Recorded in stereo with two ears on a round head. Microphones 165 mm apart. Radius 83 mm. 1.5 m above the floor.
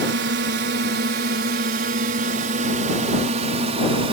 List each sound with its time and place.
0.0 s a drone: 65° right (ahead or behind); by 4.1 s 30° right (ahead or behind)